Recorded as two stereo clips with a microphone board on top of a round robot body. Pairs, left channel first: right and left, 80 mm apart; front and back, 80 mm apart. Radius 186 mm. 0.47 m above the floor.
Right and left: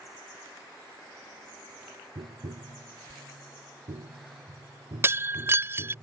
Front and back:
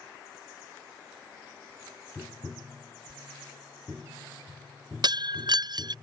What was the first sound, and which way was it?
Tapping, 100° left.